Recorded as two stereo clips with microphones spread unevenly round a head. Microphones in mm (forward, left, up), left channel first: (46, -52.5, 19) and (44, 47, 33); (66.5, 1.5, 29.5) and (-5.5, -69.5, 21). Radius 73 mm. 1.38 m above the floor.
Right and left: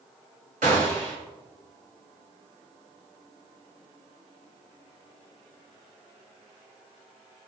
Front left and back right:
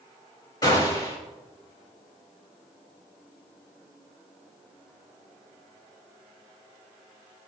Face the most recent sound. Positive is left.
turn(degrees=105)